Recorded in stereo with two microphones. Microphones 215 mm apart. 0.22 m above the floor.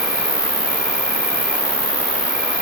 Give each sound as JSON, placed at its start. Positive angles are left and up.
{"t": 0.0, "sound": "an insect", "side_deg": -50, "distance_m": 1.0}